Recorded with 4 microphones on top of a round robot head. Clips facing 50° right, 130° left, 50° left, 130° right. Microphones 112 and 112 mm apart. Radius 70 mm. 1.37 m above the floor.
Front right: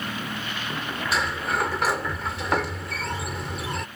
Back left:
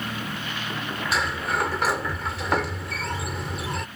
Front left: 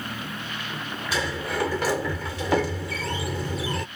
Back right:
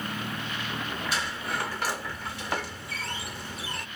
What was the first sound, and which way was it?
A sliding door, 40° left.